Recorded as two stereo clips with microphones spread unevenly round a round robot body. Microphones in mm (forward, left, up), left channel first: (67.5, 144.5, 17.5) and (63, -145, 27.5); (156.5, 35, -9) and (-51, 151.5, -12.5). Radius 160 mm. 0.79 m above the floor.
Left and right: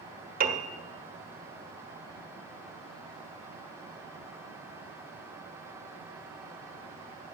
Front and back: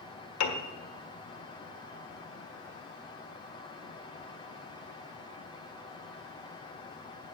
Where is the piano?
30° right, 1.5 m.